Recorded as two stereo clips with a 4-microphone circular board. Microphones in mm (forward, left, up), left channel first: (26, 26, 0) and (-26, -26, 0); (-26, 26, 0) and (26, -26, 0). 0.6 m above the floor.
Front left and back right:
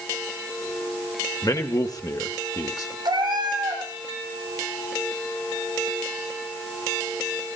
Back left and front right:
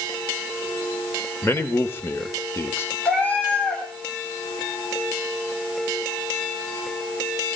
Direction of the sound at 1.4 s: 80° left.